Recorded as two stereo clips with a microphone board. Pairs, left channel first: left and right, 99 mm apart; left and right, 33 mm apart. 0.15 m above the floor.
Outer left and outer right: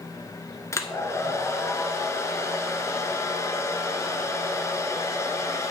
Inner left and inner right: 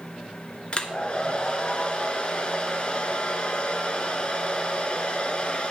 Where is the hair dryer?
30° left (ahead or behind), 0.9 m.